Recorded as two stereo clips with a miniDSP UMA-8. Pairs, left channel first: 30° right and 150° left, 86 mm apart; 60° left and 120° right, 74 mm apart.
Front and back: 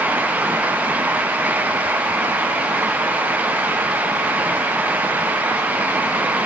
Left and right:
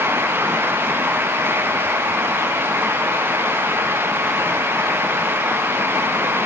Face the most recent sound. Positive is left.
No sound to turn to.